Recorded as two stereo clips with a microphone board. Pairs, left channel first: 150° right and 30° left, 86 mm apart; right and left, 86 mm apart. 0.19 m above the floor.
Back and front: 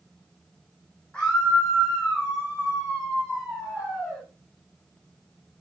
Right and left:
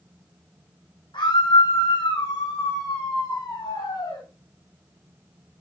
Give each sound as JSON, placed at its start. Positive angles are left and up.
{"t": 1.1, "sound": "a scream", "azimuth_deg": -75, "distance_m": 8.0}